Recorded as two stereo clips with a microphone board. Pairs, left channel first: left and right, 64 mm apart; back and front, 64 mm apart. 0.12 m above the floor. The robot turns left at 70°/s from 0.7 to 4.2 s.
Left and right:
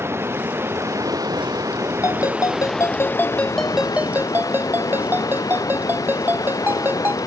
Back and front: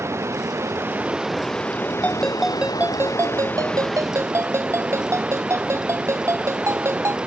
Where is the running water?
40° right; by 7.3 s 75° left.